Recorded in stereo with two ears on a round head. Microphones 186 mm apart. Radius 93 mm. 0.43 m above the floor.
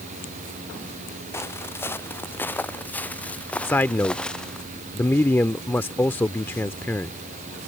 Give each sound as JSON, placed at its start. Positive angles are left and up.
{"t": 1.3, "sound": "footsteps", "side_deg": 10}
{"t": 3.6, "sound": "a man speaking", "side_deg": 10}